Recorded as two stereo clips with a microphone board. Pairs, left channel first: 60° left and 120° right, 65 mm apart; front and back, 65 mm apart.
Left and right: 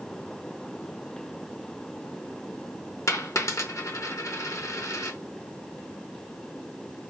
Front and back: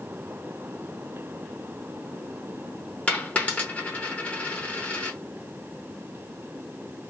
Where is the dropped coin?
60° left, 0.6 m.